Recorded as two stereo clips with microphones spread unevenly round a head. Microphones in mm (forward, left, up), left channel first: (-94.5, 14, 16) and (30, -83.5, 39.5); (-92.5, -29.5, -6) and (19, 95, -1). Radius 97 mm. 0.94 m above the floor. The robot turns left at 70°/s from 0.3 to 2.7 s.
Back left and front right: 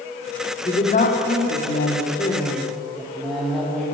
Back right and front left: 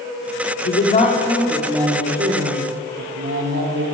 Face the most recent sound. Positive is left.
turn(degrees=55)